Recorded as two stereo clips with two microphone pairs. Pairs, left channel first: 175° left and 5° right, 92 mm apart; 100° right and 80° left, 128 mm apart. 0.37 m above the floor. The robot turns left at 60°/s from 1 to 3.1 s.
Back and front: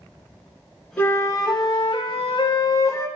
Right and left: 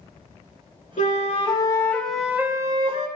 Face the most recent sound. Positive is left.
turn(degrees=115)